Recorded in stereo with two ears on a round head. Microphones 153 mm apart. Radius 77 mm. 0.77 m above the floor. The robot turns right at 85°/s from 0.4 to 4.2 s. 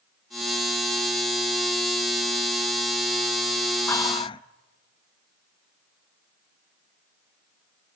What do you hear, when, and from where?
3.9 s whispering: 15° left (ahead or behind), 0.5 m; by 4.4 s 30° left (ahead or behind), 0.5 m